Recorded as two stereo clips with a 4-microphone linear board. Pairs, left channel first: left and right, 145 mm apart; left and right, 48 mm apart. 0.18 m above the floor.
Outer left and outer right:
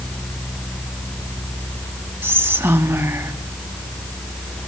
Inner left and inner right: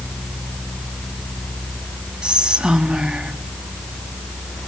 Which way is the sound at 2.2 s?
15° right (ahead or behind).